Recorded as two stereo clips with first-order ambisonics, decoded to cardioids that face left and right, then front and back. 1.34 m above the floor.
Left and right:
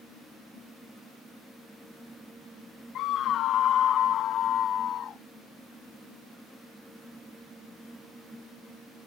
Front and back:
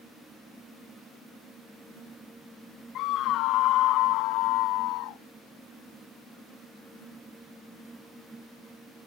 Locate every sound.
3.0 s a scream: 45° left; by 5.2 s 30° left